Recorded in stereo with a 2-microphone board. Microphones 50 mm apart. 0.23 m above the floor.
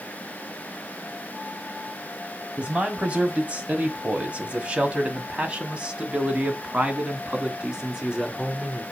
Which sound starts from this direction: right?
A man speaking, at 2.6 s.